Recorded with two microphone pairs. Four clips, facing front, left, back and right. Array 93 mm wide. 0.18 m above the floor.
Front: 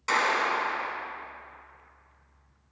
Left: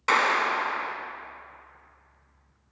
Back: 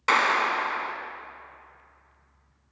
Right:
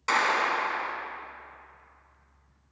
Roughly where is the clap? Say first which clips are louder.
Left 2 dB, back 3 dB; behind.